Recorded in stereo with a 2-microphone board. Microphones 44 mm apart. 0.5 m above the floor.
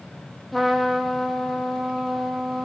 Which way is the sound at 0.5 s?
Centre (ahead or behind).